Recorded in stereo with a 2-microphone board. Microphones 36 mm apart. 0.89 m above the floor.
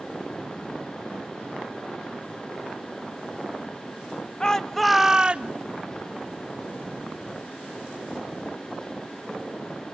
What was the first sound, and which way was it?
A shout, 20° left (ahead or behind).